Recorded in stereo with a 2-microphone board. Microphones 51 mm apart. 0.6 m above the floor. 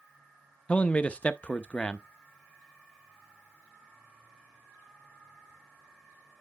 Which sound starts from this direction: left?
A man speaking, at 0.7 s.